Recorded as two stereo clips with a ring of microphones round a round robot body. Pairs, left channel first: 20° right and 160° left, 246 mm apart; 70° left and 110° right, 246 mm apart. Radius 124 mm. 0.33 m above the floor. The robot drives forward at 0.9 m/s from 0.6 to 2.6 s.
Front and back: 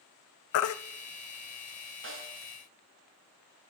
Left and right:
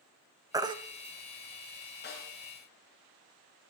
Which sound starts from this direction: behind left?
A snare drum, at 2.0 s.